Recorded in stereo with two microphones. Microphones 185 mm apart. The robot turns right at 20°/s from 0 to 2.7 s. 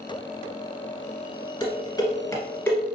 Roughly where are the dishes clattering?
Left.